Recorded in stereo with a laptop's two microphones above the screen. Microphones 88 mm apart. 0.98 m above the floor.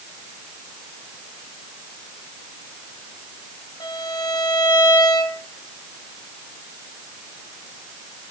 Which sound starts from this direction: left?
A violin, at 3.8 s.